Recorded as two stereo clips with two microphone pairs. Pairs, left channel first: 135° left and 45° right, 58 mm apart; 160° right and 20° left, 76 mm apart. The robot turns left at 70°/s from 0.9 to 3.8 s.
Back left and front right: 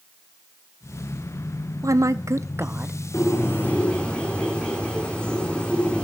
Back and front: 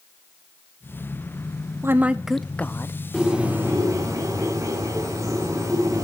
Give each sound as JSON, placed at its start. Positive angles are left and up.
{"t": 1.8, "sound": "a woman speaking", "azimuth_deg": -30, "distance_m": 0.8}
{"t": 3.1, "sound": "a bird", "azimuth_deg": 115, "distance_m": 3.5}